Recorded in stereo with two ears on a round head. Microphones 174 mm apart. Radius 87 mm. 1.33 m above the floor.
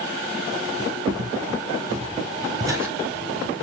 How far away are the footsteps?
About 2 m.